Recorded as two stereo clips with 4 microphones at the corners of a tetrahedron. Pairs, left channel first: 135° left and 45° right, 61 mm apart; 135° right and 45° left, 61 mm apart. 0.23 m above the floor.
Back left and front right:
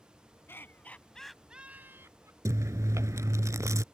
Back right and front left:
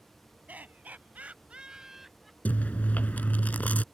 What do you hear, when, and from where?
0.5 s laughter: 100° left; by 2.4 s 45° right
2.5 s chewing: 70° right